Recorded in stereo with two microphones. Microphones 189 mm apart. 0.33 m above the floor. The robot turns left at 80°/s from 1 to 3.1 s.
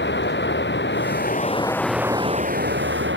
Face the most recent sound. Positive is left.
turn(degrees=-95)